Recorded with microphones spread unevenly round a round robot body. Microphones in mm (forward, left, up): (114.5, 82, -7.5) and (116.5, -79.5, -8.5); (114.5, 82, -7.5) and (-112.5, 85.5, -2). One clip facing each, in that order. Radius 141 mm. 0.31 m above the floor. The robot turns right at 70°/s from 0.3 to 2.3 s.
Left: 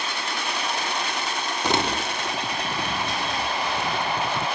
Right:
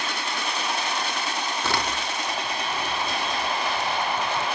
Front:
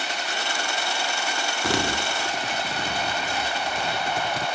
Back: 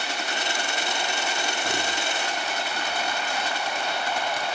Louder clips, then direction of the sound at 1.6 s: Left 6 dB, front 4 dB; 15° left.